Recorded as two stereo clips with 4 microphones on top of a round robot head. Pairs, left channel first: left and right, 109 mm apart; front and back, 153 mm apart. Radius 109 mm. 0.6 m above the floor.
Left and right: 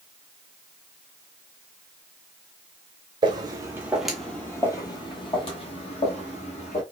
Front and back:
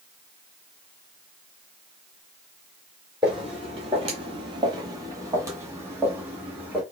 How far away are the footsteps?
About 0.8 m.